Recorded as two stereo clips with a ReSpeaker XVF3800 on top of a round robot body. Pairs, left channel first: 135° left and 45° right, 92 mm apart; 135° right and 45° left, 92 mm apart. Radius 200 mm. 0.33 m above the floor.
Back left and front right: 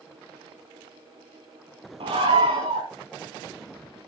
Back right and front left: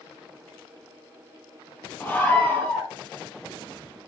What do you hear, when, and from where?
2.0 s a scream: 65° right, 5 m